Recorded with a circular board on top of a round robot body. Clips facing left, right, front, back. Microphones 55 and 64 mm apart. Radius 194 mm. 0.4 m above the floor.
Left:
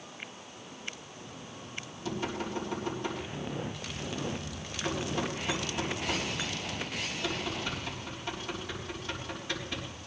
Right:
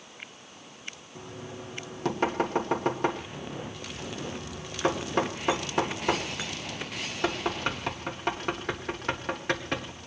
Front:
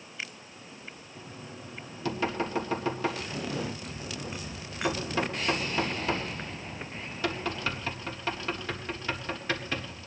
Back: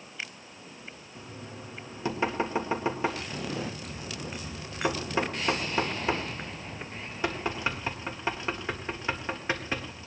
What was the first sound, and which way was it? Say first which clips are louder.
Knocking: right 5 dB, back 2 dB; 115° right.